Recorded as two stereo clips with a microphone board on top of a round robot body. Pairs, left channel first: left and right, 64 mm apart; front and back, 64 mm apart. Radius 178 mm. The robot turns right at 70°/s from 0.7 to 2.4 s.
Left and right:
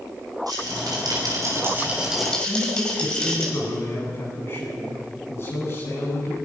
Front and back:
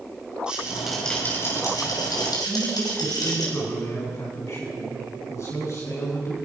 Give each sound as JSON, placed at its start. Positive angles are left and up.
{"t": 0.5, "sound": "a rattle", "azimuth_deg": -105, "distance_m": 6.0}
{"t": 2.5, "sound": "a man speaking", "azimuth_deg": 40, "distance_m": 8.5}